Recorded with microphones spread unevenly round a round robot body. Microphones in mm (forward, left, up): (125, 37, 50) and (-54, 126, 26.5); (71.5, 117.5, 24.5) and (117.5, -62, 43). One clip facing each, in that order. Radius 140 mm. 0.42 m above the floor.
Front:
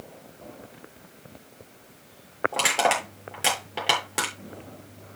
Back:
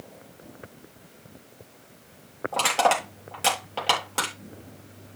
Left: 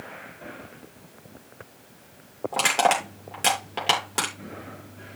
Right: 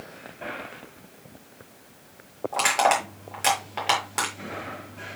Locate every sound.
2.5 s crushing: 50° left, 8.5 m